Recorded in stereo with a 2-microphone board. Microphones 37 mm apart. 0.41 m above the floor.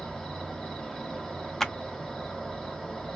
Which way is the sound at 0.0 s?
15° left (ahead or behind).